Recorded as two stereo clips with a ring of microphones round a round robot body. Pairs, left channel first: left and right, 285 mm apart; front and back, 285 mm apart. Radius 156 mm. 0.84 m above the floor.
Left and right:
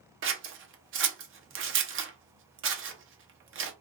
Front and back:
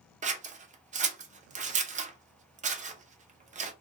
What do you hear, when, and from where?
0.2 s scissors: 120° right, 0.6 m